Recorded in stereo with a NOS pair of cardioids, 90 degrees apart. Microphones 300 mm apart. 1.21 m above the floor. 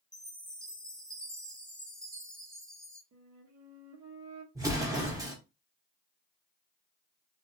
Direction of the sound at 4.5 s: 10° right.